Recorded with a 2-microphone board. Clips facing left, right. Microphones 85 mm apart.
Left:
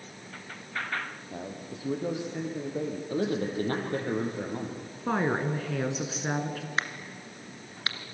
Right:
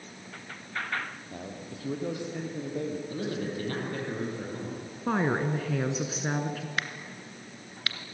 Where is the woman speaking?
Centre (ahead or behind), 1.4 m.